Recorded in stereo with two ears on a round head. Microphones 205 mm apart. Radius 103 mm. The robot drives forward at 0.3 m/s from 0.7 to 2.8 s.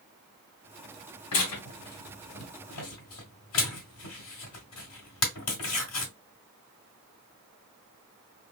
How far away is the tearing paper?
About 2 m.